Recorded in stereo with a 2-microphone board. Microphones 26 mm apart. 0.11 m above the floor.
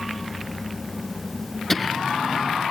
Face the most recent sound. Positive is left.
turn(degrees=-20)  # may be behind; listen again after turning